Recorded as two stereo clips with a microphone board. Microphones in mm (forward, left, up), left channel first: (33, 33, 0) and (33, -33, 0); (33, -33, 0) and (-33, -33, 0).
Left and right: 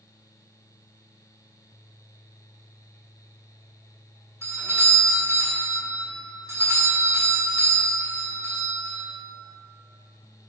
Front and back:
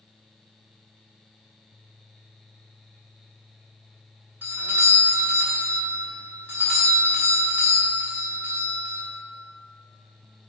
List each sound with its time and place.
4.4 s a doorbell: 125° right, 2.5 m